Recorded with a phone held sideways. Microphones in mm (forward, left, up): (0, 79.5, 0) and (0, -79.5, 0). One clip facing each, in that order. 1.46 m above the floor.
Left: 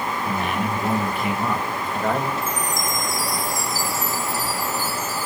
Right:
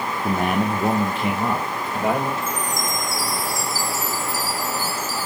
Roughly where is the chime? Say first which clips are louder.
Even; left.